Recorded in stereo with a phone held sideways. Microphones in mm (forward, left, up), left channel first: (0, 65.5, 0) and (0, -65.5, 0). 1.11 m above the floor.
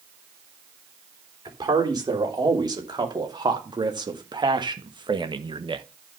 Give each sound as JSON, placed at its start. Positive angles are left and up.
{"t": 1.4, "sound": "a man speaking", "side_deg": -30, "distance_m": 3.5}